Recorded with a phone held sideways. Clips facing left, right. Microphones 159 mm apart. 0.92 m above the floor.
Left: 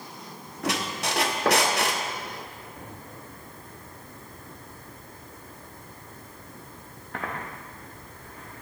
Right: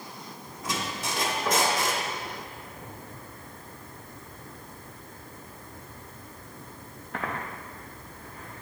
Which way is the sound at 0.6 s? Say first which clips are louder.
Left 4 dB; 75° left (ahead or behind).